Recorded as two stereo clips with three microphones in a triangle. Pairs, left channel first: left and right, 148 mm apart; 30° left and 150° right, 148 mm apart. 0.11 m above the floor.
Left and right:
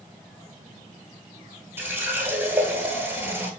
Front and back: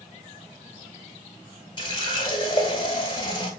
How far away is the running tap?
About 1.2 m.